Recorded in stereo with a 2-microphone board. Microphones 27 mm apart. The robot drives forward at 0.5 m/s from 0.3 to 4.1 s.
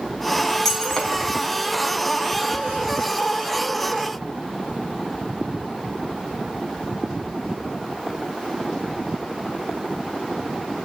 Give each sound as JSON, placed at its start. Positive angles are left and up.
{"t": 0.7, "sound": "breaking glass", "side_deg": 15, "distance_m": 4.5}